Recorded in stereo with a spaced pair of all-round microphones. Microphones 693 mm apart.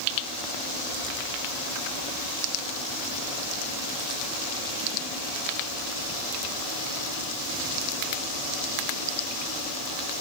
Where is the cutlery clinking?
No cutlery clinking in this recording.